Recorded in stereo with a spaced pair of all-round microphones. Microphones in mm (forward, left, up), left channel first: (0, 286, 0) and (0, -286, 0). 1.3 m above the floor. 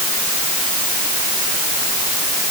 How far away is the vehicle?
No vehicle in this recording.